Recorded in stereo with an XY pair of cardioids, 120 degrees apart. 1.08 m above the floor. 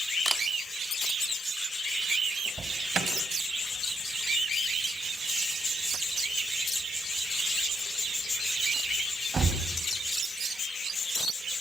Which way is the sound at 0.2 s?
10° right.